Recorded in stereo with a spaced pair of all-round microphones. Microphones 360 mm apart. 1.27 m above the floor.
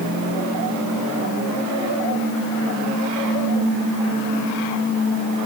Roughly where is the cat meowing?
I don't hear a cat meowing.